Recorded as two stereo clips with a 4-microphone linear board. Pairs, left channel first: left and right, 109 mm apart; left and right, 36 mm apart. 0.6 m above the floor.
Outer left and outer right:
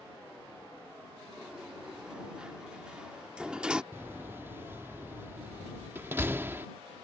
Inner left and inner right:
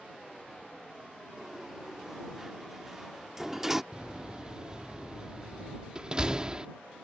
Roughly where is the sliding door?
Centre.